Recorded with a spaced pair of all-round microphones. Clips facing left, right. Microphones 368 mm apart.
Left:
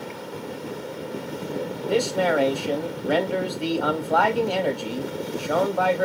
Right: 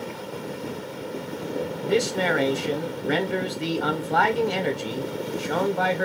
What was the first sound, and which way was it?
A man speaking, 30° right (ahead or behind).